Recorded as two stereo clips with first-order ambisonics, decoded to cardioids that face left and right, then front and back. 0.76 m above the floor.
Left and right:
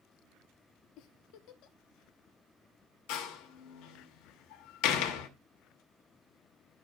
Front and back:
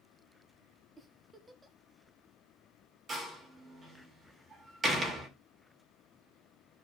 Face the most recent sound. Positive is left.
turn(degrees=110)